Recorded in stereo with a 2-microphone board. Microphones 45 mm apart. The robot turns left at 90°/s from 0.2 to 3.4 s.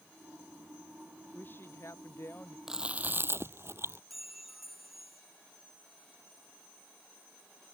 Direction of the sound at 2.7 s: 10° right.